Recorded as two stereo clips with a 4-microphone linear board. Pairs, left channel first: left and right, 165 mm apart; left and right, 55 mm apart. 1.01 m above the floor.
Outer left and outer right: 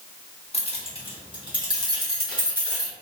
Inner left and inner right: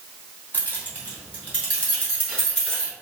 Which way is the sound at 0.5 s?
40° left (ahead or behind).